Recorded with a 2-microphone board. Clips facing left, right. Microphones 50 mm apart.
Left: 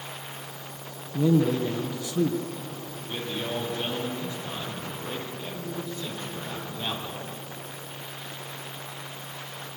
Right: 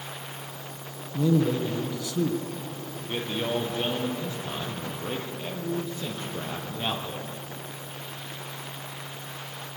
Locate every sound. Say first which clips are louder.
1.1 s a man speaking: left 1 dB; 20° left (ahead or behind), 1.7 m
2.9 s a man speaking: right 3 dB; 30° right (ahead or behind), 6 m